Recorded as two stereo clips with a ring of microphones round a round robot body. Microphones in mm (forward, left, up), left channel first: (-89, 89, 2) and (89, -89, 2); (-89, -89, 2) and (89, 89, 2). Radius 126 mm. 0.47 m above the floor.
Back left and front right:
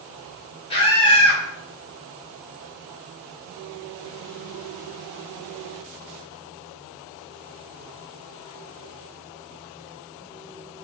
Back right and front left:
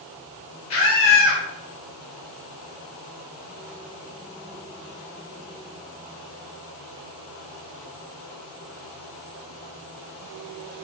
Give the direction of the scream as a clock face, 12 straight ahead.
5 o'clock.